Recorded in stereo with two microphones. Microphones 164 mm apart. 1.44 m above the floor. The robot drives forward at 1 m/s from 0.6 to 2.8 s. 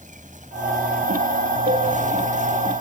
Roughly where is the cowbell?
Right.